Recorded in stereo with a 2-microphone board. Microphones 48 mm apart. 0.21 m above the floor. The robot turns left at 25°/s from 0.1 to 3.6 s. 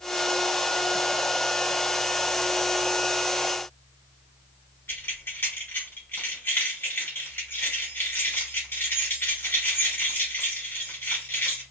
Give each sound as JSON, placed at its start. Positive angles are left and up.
{"t": 4.9, "sound": "keys jangling", "side_deg": 55, "distance_m": 1.9}